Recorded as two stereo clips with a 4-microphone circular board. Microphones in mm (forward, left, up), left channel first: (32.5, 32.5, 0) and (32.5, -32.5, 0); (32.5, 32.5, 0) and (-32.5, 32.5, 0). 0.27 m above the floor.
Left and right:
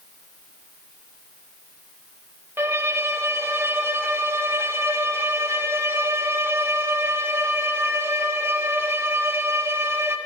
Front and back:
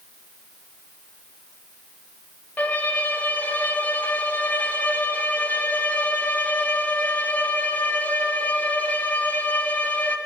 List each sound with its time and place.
2.6 s a violin: 55° right, 0.7 m